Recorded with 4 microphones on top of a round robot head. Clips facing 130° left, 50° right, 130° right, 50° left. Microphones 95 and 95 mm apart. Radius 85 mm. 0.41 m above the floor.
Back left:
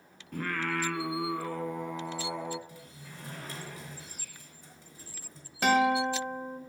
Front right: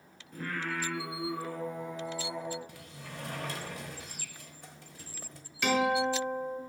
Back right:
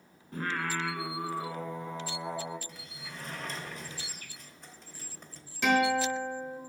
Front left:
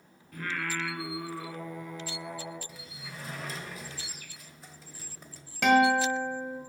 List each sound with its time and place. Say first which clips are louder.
0.3 s singing: back left 3 dB, back right 2 dB; 165° left, 0.7 m
2.7 s a sliding door: front right 3 dB, front left 1 dB; 35° right, 1.1 m
5.6 s a guitar: back left 3 dB, front left 4 dB; 80° left, 2.0 m